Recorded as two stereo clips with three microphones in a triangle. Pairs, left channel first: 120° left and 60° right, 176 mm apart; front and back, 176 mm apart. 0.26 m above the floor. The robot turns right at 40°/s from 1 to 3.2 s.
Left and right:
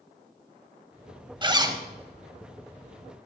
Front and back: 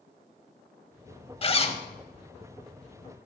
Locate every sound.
1.4 s a zipper: 20° right, 0.8 m; by 1.8 s 5° right, 0.8 m